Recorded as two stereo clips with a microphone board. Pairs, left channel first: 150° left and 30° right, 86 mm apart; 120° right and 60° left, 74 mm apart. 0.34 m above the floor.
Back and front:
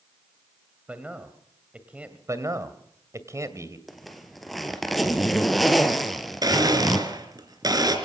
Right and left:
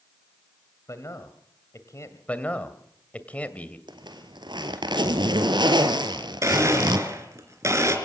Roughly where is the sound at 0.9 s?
Right.